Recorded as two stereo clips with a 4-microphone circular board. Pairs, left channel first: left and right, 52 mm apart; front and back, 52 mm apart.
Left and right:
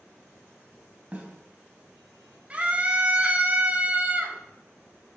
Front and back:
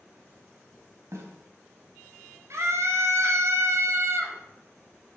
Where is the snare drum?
155° right, 4 m.